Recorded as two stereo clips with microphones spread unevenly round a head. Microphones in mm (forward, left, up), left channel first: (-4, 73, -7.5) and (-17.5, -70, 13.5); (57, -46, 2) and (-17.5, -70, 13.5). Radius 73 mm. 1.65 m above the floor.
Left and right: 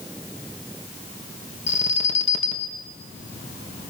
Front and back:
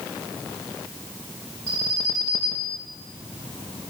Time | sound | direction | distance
1.7 | an alarm | 130° left | 2.5 m